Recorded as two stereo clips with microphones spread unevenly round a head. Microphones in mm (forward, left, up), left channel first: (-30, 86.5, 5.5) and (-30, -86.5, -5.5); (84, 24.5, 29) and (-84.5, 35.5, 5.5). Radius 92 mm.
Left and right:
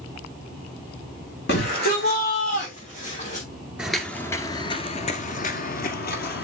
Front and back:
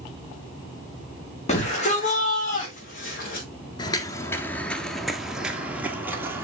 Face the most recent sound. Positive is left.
turn(degrees=95)